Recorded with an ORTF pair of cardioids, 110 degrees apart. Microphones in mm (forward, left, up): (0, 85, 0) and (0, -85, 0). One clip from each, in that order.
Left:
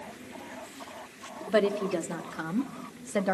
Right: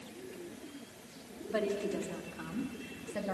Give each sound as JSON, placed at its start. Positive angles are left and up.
{"t": 1.5, "sound": "a woman speaking", "azimuth_deg": 50, "distance_m": 2.5}